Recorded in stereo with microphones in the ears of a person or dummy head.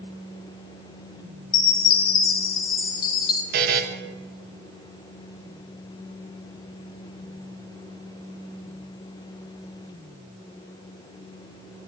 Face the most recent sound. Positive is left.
turn(degrees=-50)  # may be behind; listen again after turning